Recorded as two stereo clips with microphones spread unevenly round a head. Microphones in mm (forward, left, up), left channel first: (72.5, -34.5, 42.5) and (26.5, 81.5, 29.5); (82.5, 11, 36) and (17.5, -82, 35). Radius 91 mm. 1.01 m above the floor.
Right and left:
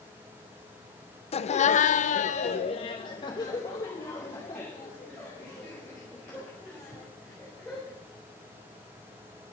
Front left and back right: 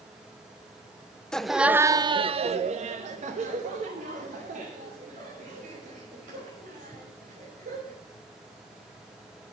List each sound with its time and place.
1.3 s laughter: 30° right, 0.7 m; by 8.0 s 155° right, 4 m